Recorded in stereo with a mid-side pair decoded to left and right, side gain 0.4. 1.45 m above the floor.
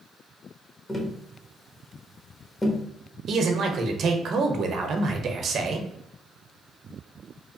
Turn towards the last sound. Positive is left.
turn(degrees=-60)